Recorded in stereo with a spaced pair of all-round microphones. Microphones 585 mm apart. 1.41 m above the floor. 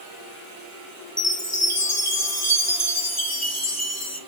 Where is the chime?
25° left (ahead or behind), 2 m.